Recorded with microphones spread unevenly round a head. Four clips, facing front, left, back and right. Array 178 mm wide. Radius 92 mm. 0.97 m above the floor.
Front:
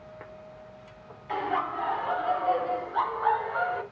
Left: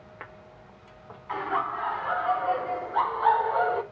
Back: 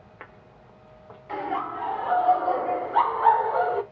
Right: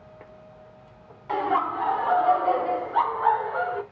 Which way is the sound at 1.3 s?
110° right.